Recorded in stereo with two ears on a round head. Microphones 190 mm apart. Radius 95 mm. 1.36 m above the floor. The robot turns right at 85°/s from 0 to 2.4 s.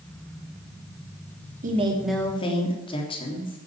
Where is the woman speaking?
40° right, 3 m; by 3.6 s 25° left, 3 m.